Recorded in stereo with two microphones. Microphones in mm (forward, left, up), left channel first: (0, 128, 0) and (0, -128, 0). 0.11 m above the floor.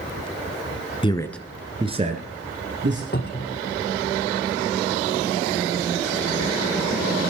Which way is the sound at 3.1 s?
40° left (ahead or behind).